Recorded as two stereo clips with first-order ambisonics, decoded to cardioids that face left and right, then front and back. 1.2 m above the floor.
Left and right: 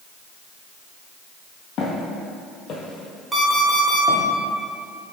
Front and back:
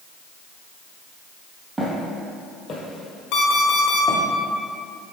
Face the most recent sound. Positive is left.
turn(degrees=-10)